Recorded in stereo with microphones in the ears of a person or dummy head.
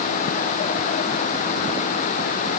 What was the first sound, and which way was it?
Only background noise.